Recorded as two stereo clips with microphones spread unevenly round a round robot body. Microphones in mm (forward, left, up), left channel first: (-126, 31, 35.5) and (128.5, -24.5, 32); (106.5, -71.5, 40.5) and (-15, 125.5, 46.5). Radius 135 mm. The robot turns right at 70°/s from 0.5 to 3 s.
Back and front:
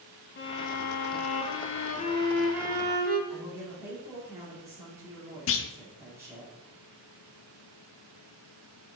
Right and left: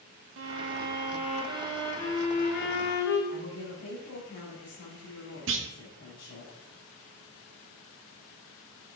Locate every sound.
0.4 s a violin: 120° left, 1.1 m; by 3.2 s 65° right, 1.1 m
3.3 s a woman speaking: 90° right, 2 m
5.5 s a clunk: 145° left, 0.5 m